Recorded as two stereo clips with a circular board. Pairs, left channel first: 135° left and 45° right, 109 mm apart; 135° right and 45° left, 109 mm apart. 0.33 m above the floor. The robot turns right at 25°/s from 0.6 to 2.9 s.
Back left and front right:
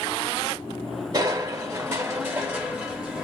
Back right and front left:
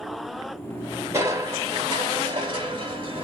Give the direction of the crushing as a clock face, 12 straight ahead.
12 o'clock.